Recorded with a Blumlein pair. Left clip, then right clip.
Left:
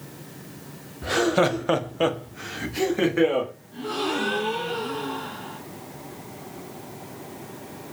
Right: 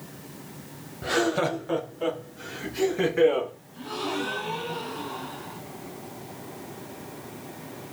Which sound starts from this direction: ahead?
Laughter, at 1.0 s.